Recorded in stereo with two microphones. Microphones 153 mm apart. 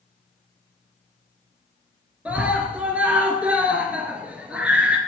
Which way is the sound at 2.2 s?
10° right (ahead or behind).